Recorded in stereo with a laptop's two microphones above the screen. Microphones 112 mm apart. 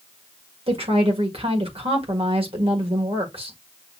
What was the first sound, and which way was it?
A woman speaking, 65° right (ahead or behind).